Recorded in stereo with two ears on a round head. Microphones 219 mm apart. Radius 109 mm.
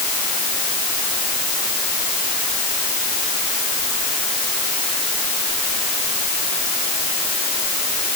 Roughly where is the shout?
I don't hear a shout.